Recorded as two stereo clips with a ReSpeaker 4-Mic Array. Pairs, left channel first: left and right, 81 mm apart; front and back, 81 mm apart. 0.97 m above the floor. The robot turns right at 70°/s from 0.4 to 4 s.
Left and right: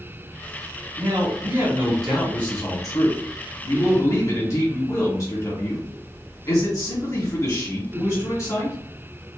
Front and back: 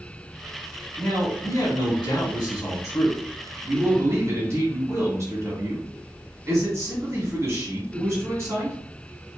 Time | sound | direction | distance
1.0 | a man speaking | 80° right | 2.0 m